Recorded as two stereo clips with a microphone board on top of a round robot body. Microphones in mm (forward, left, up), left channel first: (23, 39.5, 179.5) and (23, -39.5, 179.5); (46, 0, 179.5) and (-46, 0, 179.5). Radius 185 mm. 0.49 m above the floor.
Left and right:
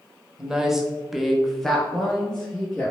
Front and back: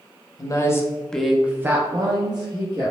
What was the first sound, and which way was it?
A woman speaking, 10° right.